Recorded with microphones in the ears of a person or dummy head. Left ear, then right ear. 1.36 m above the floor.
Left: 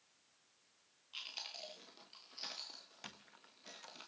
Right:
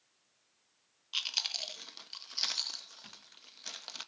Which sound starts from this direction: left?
A squeak, at 3.0 s.